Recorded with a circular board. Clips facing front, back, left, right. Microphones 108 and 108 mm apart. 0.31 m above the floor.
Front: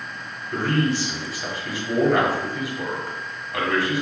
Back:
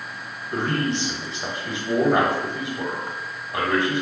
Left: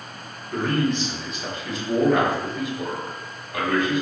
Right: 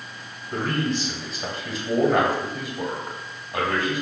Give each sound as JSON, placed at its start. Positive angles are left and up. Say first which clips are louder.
{"t": 0.5, "sound": "a man speaking", "louder": "front 2 dB, left 3 dB", "azimuth_deg": -125, "distance_m": 1.4}